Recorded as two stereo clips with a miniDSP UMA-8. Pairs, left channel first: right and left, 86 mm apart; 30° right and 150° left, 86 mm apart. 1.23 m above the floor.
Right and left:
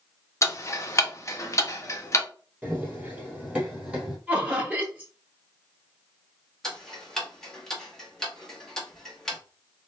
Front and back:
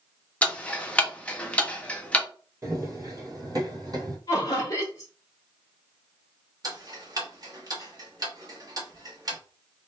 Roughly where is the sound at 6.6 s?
Behind.